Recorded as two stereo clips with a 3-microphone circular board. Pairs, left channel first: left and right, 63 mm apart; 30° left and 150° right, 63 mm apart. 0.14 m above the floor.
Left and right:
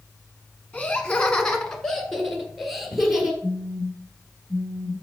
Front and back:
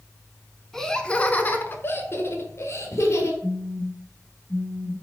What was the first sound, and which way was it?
Laughter, 110° left.